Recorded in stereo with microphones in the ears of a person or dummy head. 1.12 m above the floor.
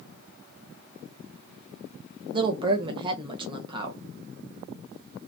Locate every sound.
2.3 s a woman speaking: 25° right (ahead or behind), 0.8 m